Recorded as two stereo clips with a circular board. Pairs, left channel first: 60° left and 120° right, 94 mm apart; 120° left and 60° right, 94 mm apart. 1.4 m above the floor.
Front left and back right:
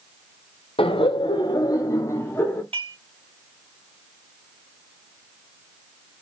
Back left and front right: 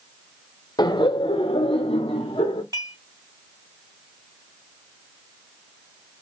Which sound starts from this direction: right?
Dishes clattering, at 2.7 s.